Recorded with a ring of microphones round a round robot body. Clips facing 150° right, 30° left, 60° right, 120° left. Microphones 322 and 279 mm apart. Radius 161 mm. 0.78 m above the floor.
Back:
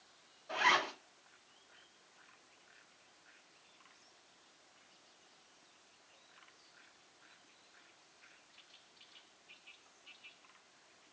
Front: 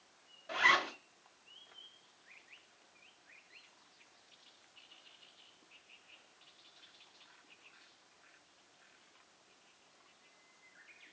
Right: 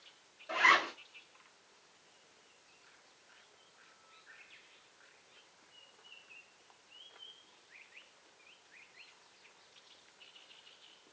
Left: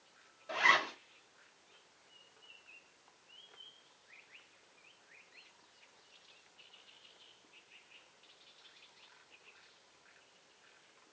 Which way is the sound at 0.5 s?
30° left.